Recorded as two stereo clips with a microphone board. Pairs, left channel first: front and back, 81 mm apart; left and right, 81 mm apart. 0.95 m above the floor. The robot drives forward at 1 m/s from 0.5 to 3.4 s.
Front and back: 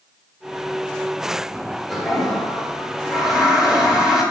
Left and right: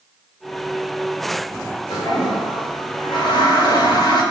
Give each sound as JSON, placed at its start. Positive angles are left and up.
{"t": 1.9, "sound": "a toilet flushing", "azimuth_deg": 85, "distance_m": 7.5}